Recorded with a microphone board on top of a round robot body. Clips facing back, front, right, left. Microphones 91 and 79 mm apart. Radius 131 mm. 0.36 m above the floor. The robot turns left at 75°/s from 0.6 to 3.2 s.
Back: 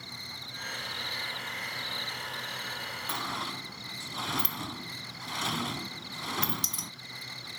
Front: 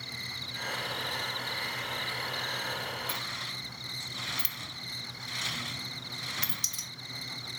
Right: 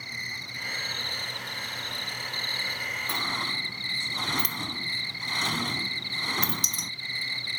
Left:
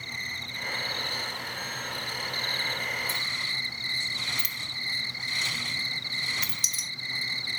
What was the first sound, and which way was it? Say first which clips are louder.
An insect: front 2 dB, even; 5° right.